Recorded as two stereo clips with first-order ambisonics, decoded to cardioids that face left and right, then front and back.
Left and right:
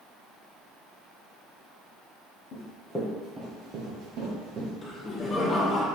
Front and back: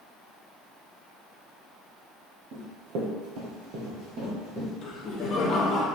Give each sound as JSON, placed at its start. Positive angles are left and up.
{"t": 2.5, "sound": "running footsteps", "azimuth_deg": 140, "distance_m": 1.5}
{"t": 4.8, "sound": "laughter", "azimuth_deg": 30, "distance_m": 0.9}